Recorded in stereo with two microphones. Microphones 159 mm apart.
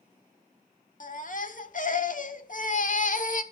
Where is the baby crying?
60° left (ahead or behind), 1.3 m.